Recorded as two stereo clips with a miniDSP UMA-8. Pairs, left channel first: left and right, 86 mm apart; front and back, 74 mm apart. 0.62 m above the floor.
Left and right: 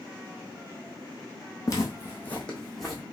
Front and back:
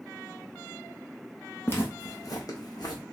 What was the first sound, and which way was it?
Footsteps, 50° left.